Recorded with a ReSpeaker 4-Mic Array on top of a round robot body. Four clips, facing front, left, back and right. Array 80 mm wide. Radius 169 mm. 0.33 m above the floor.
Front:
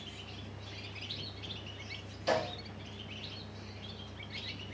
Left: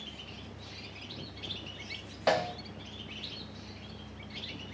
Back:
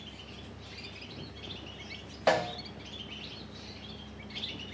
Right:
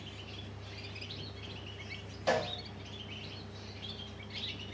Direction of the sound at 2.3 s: 150° left.